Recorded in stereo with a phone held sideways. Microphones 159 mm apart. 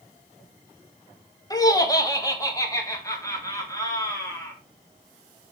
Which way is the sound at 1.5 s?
25° left (ahead or behind).